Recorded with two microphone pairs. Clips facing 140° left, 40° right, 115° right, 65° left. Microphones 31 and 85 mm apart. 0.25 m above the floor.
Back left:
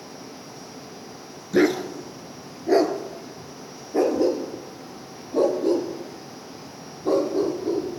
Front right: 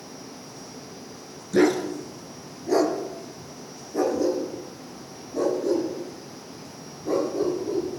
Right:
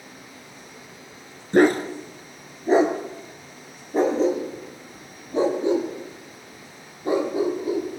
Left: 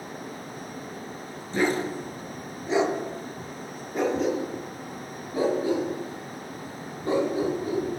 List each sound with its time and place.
1.5 s a dog barking: 145° right, 1.8 m; by 8.0 s 175° left, 5 m